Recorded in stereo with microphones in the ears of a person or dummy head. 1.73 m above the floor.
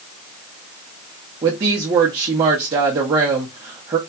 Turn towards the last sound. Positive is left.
turn(degrees=-20)  # may be behind; listen again after turning